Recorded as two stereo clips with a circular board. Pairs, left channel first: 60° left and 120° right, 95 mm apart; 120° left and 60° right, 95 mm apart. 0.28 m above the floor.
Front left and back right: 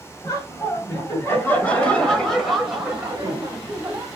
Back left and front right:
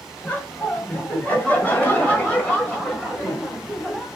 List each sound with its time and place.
0.2 s laughter: 60° left, 1.7 m; by 4.1 s 160° right, 1.6 m